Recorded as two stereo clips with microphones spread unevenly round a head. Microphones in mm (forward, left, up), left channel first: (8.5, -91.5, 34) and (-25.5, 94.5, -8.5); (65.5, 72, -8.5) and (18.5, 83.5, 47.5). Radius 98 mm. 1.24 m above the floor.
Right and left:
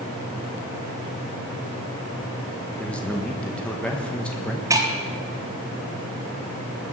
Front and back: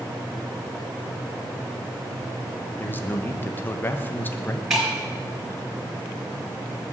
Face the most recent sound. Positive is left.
turn(degrees=180)